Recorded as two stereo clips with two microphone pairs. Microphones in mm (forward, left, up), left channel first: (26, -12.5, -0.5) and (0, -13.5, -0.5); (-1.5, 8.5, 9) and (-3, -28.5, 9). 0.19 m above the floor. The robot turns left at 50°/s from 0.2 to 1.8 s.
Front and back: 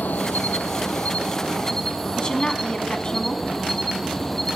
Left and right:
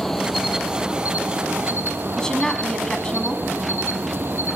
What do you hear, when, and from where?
0.0 s an insect: 5° left, 1.1 m; by 4.6 s 75° right, 1.1 m
2.2 s a woman speaking: 30° left, 1.4 m